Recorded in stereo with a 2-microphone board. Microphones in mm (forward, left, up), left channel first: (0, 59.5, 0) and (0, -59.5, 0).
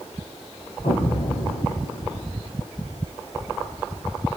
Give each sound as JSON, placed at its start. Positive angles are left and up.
{"t": 0.8, "sound": "an explosion", "side_deg": 80, "distance_m": 5.0}